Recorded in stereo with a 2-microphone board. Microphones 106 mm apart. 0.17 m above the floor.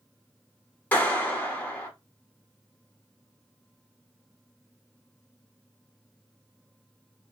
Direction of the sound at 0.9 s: 15° left (ahead or behind).